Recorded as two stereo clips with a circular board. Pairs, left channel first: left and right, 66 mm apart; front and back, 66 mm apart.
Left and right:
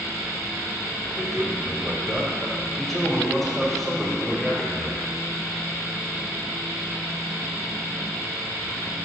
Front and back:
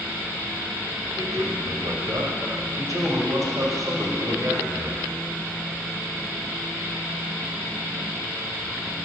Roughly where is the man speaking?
Behind.